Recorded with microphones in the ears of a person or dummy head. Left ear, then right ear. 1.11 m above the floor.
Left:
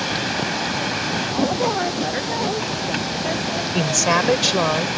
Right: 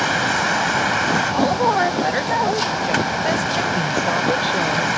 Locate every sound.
0.0 s a vehicle: 50° right (ahead or behind)
1.3 s a woman speaking: 45° right (ahead or behind)
3.7 s a woman speaking: 50° left (ahead or behind)